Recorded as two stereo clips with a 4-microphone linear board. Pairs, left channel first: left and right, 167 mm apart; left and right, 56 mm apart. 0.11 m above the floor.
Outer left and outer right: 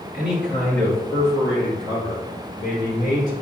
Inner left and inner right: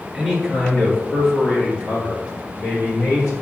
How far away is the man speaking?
About 1.8 m.